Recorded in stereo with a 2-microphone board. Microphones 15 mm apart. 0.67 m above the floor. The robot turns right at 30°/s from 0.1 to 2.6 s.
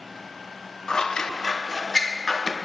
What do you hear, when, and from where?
0.9 s scissors: 55° left, 0.5 m; by 2.5 s 105° left, 0.5 m